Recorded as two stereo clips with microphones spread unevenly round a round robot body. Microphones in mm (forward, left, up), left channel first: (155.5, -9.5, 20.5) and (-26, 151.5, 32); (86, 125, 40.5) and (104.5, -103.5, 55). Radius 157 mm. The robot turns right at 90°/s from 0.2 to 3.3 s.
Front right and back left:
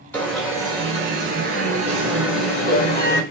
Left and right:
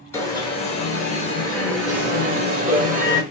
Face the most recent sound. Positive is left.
turn(degrees=-50)